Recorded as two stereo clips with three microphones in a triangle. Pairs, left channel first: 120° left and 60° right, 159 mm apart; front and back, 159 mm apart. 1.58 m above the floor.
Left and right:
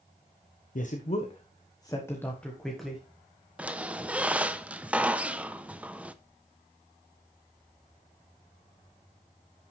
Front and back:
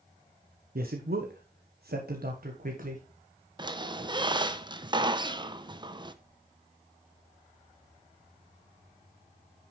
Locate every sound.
0.8 s a man speaking: 155° left, 1.1 m; by 3.0 s 145° right, 1.6 m
3.6 s a squeak: 140° right, 0.6 m